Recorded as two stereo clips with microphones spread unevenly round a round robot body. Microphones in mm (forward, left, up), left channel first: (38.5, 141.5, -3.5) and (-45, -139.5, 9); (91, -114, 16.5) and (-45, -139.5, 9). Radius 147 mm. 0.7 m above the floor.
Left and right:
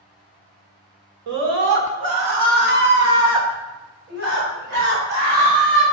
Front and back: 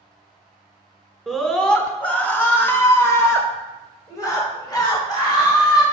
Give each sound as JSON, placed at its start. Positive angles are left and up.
{"t": 1.3, "sound": "a scream", "azimuth_deg": -80, "distance_m": 3.0}